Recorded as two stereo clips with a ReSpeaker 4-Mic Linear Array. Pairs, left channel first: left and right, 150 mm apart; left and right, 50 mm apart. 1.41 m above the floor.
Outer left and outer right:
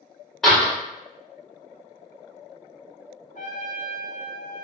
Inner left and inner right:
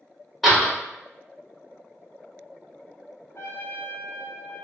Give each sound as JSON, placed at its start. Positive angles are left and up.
{"t": 0.4, "sound": "a door slam", "side_deg": 0, "distance_m": 1.3}
{"t": 3.4, "sound": "a trumpet", "side_deg": 60, "distance_m": 0.6}